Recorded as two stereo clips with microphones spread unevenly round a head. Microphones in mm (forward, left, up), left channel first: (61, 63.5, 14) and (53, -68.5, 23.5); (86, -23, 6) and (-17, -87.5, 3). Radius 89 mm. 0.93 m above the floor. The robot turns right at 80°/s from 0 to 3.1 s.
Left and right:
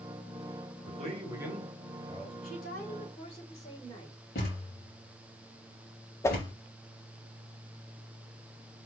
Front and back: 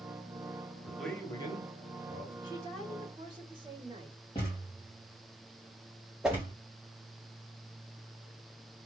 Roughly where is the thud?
Left.